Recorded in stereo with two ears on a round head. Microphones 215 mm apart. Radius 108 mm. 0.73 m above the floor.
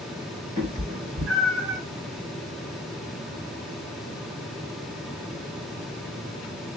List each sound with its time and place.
0.6 s a cat meowing: 45° right (ahead or behind), 3 m; by 1.8 s 50° right (ahead or behind), 2.5 m